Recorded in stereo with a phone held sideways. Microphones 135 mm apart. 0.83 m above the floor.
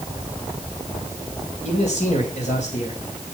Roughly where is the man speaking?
Left.